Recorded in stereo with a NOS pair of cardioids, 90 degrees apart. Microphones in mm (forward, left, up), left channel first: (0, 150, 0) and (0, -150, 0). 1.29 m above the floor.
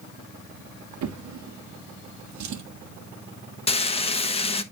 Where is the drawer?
65° right, 1.7 m.